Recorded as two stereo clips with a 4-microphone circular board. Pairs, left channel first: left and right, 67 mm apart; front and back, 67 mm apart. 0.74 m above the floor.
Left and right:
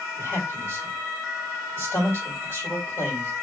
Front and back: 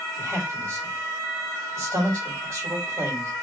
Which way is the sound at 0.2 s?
140° left.